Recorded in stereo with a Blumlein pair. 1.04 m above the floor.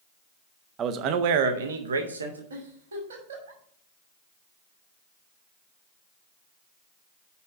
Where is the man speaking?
25° right, 0.7 m; by 2.4 s 80° right, 1.4 m.